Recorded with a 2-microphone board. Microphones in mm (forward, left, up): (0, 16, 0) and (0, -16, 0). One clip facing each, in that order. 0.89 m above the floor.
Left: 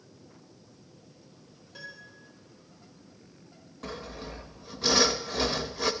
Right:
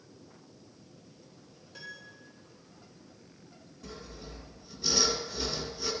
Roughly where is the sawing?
Left.